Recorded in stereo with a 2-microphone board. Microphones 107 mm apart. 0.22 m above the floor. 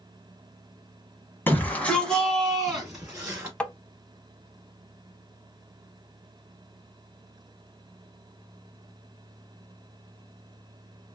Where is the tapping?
10° left (ahead or behind), 0.6 m.